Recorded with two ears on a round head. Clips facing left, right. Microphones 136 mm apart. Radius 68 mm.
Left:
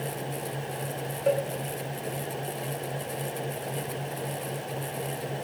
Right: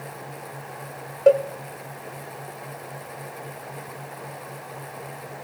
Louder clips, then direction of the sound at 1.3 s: Right 9 dB; 55° right (ahead or behind).